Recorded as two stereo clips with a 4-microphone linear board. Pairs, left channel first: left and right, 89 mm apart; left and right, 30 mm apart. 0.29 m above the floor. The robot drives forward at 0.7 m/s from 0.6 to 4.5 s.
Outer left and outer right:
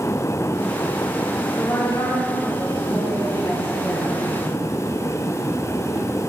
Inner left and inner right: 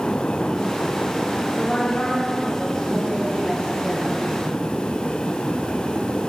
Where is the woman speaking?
40° left (ahead or behind), 1.9 m; by 4.3 s 25° left (ahead or behind), 3 m.